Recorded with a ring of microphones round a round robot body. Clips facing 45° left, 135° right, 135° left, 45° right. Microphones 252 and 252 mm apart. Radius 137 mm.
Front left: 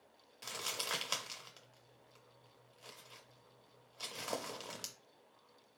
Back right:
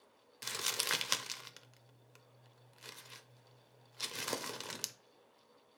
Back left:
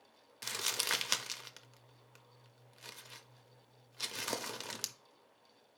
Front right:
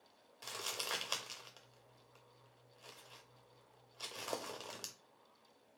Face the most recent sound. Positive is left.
turn(degrees=180)